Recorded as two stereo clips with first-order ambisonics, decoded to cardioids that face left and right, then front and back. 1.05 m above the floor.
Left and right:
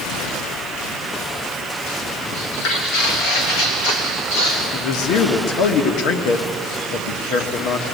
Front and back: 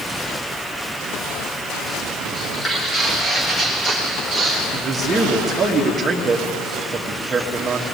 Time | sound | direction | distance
2.3 | footsteps | 70° left | 2.5 m
4.7 | a man speaking | 110° left | 1.5 m